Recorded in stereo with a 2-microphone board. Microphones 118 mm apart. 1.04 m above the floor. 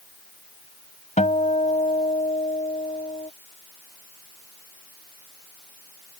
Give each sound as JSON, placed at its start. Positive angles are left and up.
{"t": 1.2, "sound": "a guitar", "side_deg": 75}